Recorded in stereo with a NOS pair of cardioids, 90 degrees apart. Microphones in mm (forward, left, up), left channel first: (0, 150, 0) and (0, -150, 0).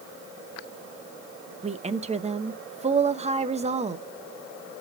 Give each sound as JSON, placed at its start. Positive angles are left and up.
{"t": 1.6, "sound": "a woman speaking", "azimuth_deg": -20, "distance_m": 0.9}